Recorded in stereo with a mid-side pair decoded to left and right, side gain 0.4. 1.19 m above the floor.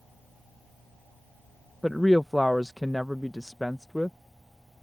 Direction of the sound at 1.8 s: 5° left.